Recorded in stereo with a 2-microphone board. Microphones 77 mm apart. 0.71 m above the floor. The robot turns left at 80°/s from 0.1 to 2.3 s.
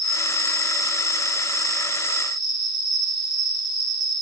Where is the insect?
5° left, 6 m; by 4.2 s 170° right, 6 m.